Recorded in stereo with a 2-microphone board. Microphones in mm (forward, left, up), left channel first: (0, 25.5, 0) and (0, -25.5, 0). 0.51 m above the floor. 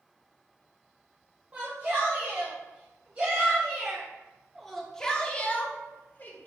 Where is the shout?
35° right (ahead or behind), 1.9 m; by 6.5 s 35° left (ahead or behind), 1.1 m.